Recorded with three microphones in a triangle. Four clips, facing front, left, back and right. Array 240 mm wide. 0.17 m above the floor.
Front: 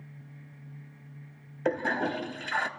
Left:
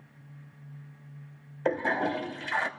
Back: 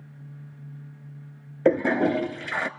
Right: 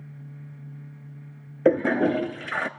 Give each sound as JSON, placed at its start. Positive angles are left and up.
{"t": 1.6, "sound": "a toilet flushing", "azimuth_deg": -130, "distance_m": 0.9}